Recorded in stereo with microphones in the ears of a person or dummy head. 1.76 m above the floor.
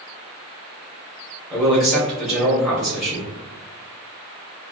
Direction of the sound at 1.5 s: 5° right (ahead or behind).